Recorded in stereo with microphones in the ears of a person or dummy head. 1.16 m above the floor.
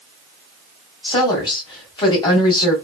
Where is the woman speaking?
25° left (ahead or behind), 1.4 m.